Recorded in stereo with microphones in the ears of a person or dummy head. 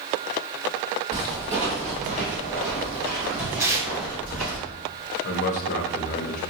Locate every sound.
1.1 s footsteps: 25° right (ahead or behind), 1.9 m; by 4.6 s 55° right (ahead or behind), 4.5 m
3.6 s tearing paper: 15° right (ahead or behind), 1.0 m
5.2 s a man speaking: 50° left (ahead or behind), 0.7 m